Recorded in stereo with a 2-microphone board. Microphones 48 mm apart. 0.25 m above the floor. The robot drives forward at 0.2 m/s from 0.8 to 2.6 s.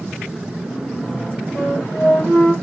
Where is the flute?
55° left (ahead or behind), 9 m.